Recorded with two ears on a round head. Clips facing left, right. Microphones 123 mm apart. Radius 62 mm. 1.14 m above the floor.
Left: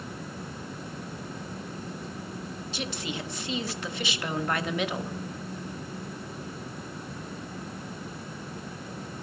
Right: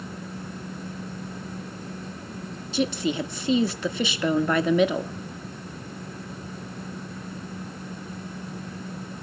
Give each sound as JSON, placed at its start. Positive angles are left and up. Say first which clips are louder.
{"t": 2.7, "sound": "a woman speaking", "louder": "right 11 dB", "side_deg": -80, "distance_m": 1.6}